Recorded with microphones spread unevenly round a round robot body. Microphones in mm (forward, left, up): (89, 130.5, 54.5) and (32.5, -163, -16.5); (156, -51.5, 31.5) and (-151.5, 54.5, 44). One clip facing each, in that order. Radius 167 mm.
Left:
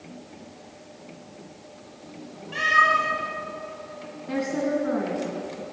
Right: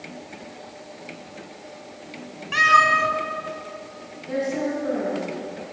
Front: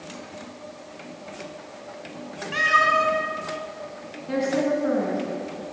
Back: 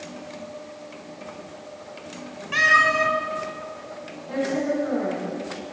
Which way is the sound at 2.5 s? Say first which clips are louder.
Right 3 dB, back 1 dB; 125° right.